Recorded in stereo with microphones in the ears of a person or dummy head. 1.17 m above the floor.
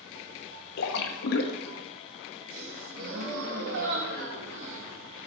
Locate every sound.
0.8 s a splash: 70° left (ahead or behind), 1.0 m
2.5 s a gasp: 70° right (ahead or behind), 2.5 m